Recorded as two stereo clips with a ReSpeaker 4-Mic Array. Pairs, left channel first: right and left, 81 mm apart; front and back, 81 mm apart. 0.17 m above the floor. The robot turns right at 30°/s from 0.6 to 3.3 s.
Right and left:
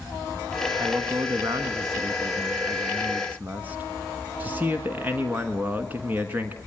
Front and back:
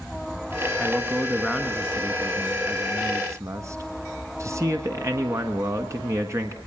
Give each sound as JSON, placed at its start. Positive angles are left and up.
{"t": 0.8, "sound": "a man speaking", "azimuth_deg": 75, "distance_m": 1.4}